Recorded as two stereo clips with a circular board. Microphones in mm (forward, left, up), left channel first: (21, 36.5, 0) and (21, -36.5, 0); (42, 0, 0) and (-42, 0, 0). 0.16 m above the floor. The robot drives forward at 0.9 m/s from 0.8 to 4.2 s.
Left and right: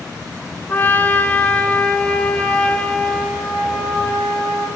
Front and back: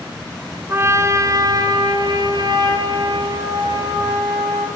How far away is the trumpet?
About 1.3 m.